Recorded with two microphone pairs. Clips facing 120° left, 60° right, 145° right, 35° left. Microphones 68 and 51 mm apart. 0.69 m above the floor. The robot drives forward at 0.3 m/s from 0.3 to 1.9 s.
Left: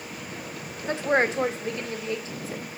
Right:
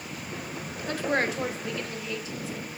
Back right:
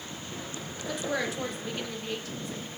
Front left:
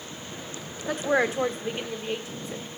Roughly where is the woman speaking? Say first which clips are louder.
Left 4 dB, front left 7 dB; ahead left.